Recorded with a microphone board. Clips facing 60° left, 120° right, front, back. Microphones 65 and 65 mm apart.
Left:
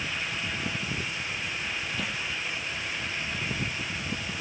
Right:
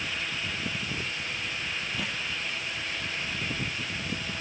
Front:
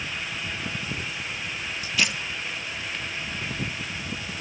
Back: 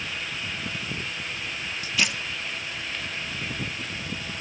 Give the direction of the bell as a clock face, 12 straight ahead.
No bell in this recording.